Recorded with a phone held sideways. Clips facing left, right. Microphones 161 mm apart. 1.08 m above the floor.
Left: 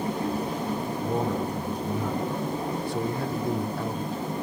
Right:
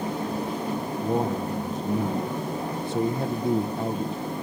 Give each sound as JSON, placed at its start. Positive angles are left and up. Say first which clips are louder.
{"t": 1.0, "sound": "a man speaking", "louder": "right 2 dB", "side_deg": -25, "distance_m": 0.7}